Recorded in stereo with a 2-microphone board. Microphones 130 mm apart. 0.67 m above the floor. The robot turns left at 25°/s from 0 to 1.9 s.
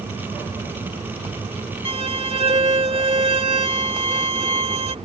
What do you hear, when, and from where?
1.9 s a violin: 50° right (ahead or behind)